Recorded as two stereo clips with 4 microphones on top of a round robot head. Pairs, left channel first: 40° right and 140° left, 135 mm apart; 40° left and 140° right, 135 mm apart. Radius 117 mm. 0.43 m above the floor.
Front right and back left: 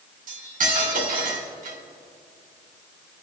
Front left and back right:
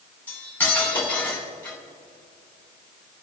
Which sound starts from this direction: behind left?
Cutlery clinking, at 0.3 s.